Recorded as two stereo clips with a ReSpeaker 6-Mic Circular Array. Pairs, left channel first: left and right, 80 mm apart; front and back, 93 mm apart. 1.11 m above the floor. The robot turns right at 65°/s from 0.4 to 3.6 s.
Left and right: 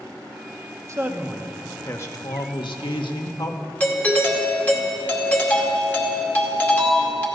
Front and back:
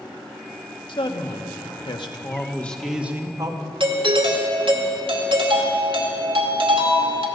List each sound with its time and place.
0.9 s a man speaking: 40° right, 1.5 m; by 3.6 s 140° left, 1.5 m
3.8 s a doorbell: 155° left, 1.9 m